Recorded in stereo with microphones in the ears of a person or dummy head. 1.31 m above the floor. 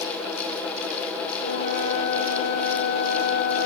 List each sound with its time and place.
1.4 s a flute: 35° left (ahead or behind), 0.9 m